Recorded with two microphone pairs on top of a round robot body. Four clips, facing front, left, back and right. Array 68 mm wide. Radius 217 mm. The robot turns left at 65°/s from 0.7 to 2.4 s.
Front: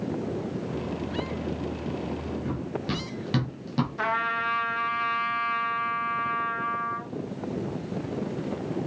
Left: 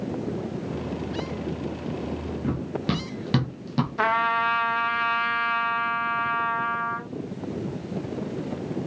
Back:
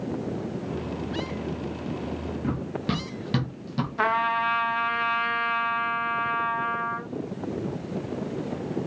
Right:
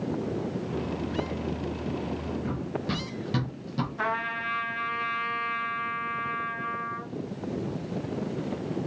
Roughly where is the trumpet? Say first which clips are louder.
Left 9 dB, back 5 dB; left.